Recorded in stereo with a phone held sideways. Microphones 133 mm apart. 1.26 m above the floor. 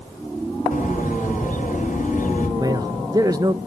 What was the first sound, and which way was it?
A bird, 75° left (ahead or behind).